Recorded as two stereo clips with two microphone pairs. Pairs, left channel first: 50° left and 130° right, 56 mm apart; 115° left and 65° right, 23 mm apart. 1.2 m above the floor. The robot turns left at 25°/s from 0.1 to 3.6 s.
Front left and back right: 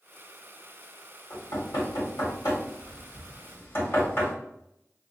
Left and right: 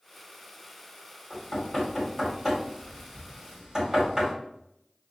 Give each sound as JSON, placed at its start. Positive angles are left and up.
{"t": 1.3, "sound": "knocking", "azimuth_deg": 55, "distance_m": 2.0}